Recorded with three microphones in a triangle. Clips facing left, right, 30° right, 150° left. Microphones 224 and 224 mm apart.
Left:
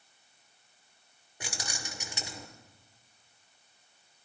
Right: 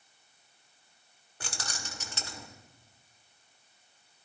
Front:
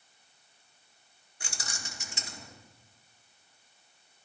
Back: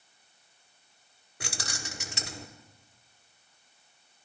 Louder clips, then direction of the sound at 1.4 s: Left 1 dB, back 6 dB; 165° left.